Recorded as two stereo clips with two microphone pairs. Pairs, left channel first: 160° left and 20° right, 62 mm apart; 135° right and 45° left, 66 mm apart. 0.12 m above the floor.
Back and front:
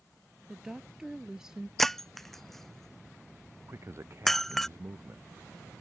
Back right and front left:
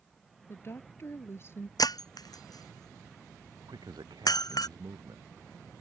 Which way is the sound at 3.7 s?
30° left.